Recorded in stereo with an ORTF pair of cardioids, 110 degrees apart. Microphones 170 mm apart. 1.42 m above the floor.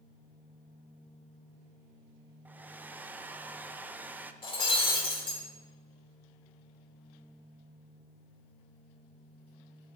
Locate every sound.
2.5 s a hair dryer: 10° right, 0.5 m
4.4 s breaking glass: 35° left, 2.5 m